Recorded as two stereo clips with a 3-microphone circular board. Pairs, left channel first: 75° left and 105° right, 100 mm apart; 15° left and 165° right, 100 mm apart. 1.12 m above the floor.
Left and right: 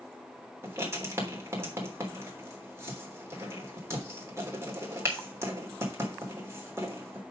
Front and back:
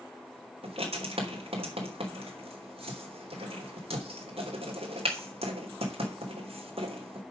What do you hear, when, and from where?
0.6 s writing: 165° right, 3 m